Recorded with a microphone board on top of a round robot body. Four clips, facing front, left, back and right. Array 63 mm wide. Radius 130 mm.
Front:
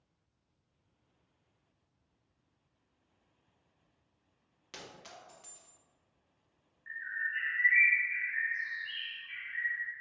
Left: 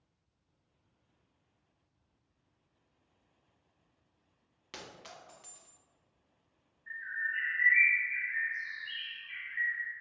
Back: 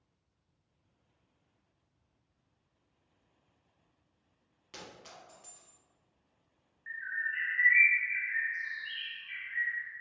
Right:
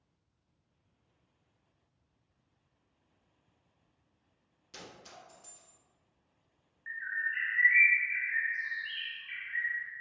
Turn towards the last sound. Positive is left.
turn(degrees=-100)